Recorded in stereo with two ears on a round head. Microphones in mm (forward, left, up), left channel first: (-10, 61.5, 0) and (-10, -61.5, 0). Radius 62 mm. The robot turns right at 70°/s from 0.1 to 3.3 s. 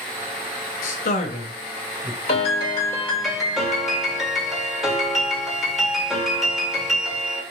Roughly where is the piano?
Left.